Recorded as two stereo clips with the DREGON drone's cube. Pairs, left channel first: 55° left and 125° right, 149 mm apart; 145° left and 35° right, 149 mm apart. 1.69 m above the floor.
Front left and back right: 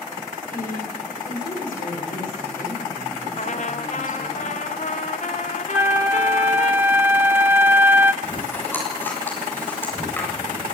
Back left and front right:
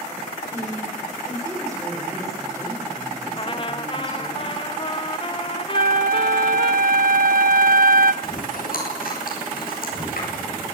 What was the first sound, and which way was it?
A woman speaking, 35° left.